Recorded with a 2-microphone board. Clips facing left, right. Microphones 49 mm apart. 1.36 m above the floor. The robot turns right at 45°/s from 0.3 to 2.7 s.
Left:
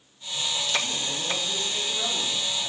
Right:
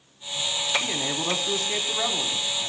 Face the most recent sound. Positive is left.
turn(degrees=-15)